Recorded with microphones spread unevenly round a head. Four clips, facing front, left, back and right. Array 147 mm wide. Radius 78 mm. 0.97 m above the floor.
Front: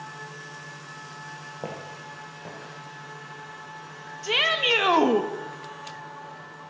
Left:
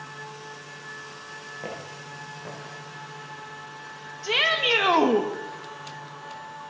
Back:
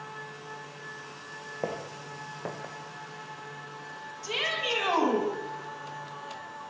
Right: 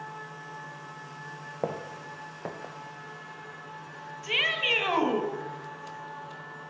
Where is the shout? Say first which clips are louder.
Left 6 dB, front 7 dB; 45° left, 1.4 m.